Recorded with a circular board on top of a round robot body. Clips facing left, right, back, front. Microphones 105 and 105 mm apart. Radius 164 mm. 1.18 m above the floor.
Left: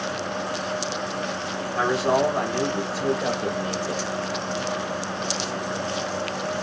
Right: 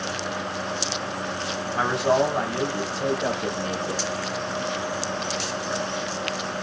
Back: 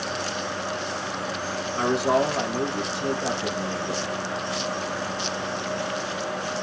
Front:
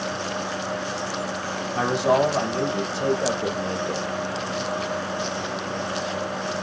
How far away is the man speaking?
About 2 m.